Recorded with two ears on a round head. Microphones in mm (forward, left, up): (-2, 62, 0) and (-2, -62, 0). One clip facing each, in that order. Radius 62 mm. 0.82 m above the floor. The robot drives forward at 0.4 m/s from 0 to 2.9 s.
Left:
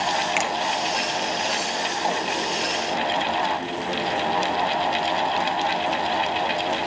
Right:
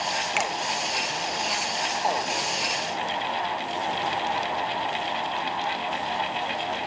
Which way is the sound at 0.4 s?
Centre (ahead or behind).